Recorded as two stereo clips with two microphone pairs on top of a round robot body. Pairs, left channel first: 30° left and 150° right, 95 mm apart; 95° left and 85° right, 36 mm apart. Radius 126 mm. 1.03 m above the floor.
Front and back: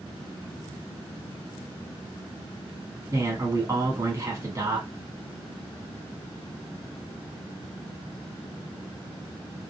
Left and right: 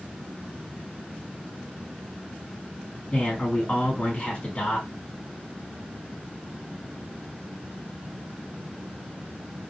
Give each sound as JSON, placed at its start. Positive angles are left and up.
{"t": 3.1, "sound": "a man speaking", "azimuth_deg": 150, "distance_m": 1.7}